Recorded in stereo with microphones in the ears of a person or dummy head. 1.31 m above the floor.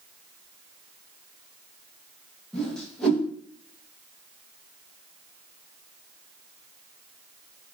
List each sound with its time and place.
2.5 s a whoosh: 10° left (ahead or behind), 0.7 m